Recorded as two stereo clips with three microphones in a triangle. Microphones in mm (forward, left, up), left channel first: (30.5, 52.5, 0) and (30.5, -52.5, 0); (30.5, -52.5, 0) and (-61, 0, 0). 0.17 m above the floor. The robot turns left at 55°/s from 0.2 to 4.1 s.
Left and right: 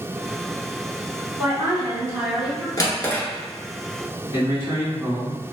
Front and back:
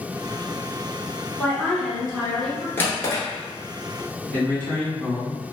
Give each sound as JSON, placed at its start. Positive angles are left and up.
{"t": 1.4, "sound": "a woman speaking", "azimuth_deg": -75, "distance_m": 1.0}
{"t": 2.8, "sound": "a drawer", "azimuth_deg": 40, "distance_m": 0.7}
{"t": 4.3, "sound": "a man speaking", "azimuth_deg": -90, "distance_m": 1.4}